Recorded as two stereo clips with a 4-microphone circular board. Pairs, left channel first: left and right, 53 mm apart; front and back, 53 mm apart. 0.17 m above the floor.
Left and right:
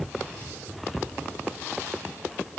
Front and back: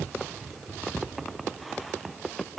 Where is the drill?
I don't hear a drill.